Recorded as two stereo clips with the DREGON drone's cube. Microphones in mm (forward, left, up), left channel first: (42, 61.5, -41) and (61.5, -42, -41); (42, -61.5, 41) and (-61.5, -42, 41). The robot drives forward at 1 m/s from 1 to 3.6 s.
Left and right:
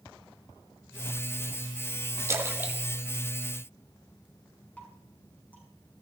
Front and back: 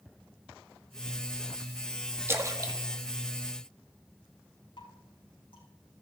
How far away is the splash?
About 1.3 m.